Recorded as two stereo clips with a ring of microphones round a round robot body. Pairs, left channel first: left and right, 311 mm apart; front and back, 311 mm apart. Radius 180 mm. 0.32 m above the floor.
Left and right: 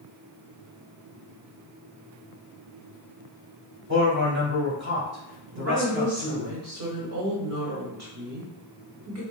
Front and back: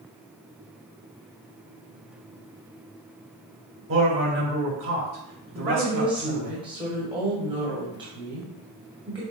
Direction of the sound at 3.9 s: 140° right.